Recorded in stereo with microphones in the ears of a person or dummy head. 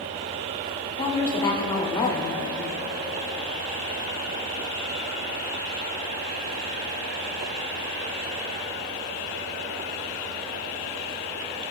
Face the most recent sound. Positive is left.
turn(degrees=25)  # may be behind; listen again after turning